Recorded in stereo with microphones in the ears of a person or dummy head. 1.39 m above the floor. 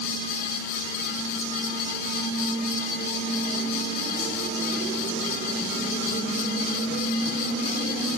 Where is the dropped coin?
No dropped coin in this recording.